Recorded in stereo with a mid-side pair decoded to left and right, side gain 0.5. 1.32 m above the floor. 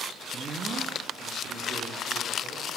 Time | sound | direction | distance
0.3 | a man speaking | 40° right | 1.7 m